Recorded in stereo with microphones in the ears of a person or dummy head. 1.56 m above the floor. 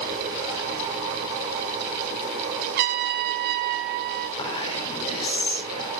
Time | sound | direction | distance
2.8 | a trumpet | 55° right (ahead or behind) | 1.9 m
4.4 | whispering | 25° left (ahead or behind) | 5 m